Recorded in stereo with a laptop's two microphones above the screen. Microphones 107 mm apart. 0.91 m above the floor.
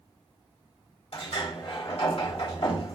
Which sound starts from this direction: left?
A sliding door, at 1.1 s.